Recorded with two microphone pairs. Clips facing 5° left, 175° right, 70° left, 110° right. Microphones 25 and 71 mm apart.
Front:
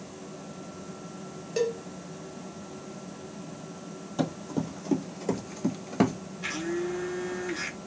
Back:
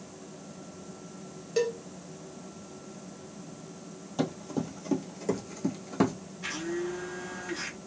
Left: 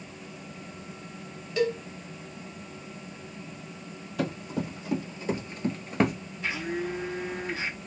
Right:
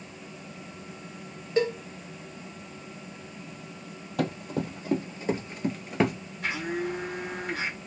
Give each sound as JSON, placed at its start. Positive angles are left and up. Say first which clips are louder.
{"t": 1.6, "sound": "a cowbell", "louder": "even, right 1 dB", "azimuth_deg": -85, "distance_m": 0.6}
{"t": 4.2, "sound": "running footsteps", "louder": "front 1 dB, right 1 dB", "azimuth_deg": -90, "distance_m": 1.9}
{"t": 6.4, "sound": "a blender", "louder": "front 2 dB, right 1 dB", "azimuth_deg": -80, "distance_m": 1.6}